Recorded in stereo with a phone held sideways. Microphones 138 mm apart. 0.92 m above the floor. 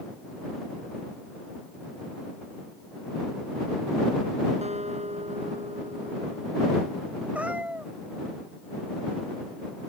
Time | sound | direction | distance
4.6 | a guitar | 50° right (ahead or behind) | ?
7.3 | a cat meowing | 10° right (ahead or behind) | ?